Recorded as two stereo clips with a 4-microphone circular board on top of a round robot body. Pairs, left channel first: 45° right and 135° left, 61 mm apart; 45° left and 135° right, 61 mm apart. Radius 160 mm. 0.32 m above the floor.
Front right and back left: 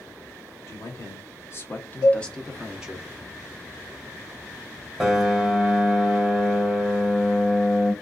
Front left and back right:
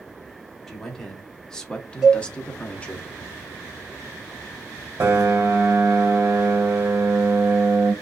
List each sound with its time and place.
0.7 s a man speaking: 35° right, 1.4 m; by 3.0 s 90° left, 0.9 m
2.0 s a cowbell: 50° right, 0.7 m
5.0 s a piano: 150° right, 1.5 m